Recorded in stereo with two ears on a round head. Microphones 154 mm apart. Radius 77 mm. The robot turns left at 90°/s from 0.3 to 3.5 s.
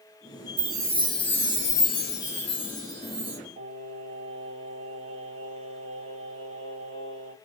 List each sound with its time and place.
0.6 s a chime: 135° right, 1.9 m; by 3.4 s 25° right, 1.9 m
3.6 s singing: 35° right (ahead or behind), 1.5 m